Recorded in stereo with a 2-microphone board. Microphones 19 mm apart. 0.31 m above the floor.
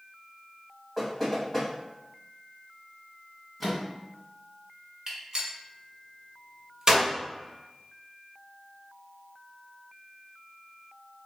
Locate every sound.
1.0 s knocking: 5° left (ahead or behind), 1.6 m
3.6 s a microwave: 5° right (ahead or behind), 1.8 m
5.1 s a gunshot: 35° right (ahead or behind), 1.5 m